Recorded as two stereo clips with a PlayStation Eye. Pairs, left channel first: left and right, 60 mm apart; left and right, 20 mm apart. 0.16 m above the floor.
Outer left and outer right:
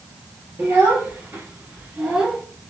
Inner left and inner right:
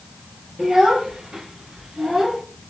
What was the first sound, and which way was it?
A child speaking, 35° right (ahead or behind).